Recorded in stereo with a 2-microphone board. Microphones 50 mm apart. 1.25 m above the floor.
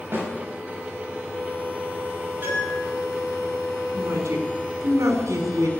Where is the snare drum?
45° right (ahead or behind), 8 m.